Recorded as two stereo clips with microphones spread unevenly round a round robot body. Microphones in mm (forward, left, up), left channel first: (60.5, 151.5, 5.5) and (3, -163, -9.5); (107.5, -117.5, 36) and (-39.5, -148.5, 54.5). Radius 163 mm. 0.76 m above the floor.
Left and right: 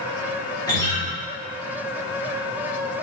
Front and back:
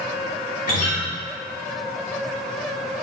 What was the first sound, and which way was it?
A guitar, straight ahead.